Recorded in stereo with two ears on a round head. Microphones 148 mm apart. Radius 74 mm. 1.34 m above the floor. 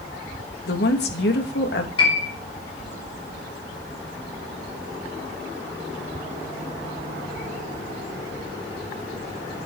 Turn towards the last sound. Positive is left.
turn(degrees=30)  # may be behind; listen again after turning